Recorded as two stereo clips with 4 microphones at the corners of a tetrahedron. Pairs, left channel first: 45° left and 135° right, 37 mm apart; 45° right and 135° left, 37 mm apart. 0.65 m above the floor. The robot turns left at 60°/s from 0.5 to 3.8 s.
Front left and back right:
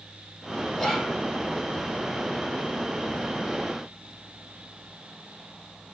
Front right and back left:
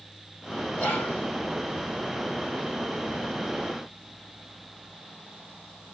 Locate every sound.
0.8 s whispering: 40° right, 1.9 m; by 1.2 s 65° right, 1.9 m